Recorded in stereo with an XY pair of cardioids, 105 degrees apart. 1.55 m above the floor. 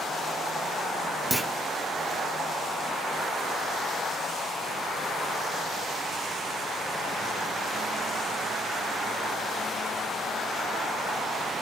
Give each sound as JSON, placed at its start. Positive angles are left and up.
{"t": 1.3, "sound": "a clunk", "azimuth_deg": -5, "distance_m": 0.6}